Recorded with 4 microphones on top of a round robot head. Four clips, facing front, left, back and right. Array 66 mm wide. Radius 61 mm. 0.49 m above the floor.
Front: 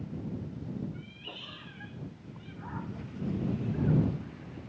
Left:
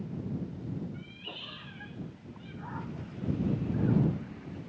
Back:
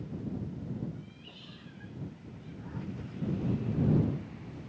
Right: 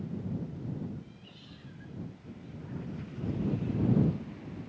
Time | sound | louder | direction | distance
0.9 | a cat meowing | left 5 dB, front 4 dB | 55° left | ?